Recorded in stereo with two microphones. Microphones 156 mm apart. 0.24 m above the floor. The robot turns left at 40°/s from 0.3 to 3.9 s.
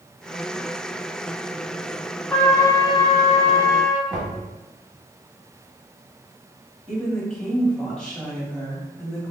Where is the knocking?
5° right (ahead or behind), 1.5 m.